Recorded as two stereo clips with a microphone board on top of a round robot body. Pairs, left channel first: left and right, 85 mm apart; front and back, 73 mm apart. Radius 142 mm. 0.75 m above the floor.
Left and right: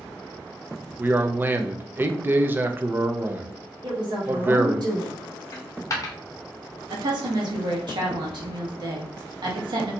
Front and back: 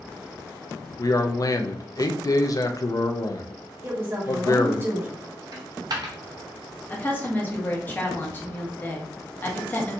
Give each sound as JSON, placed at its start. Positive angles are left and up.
{"t": 1.0, "sound": "a man speaking", "azimuth_deg": -25, "distance_m": 0.6}
{"t": 3.8, "sound": "a woman speaking", "azimuth_deg": -120, "distance_m": 1.2}
{"t": 5.5, "sound": "a dropped coin", "azimuth_deg": 145, "distance_m": 0.6}
{"t": 6.9, "sound": "a woman speaking", "azimuth_deg": -65, "distance_m": 1.3}